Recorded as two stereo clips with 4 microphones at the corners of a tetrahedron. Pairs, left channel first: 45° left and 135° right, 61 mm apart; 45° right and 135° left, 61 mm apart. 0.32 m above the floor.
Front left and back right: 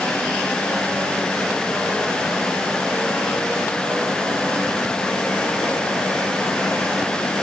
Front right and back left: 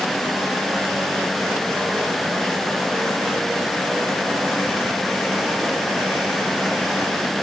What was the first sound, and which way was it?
Only background noise.